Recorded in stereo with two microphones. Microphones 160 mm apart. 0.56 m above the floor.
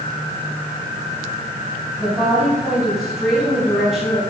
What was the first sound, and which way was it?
A woman speaking, centre (ahead or behind).